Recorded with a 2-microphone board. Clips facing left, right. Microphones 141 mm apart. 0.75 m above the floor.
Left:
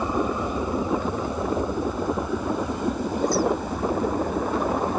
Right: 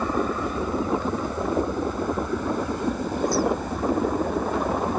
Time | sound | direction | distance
0.0 | an aircraft | 15° left (ahead or behind) | ?